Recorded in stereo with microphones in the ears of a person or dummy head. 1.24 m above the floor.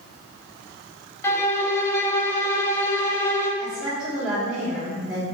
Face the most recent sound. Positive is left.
turn(degrees=0)  # may be behind; listen again after turning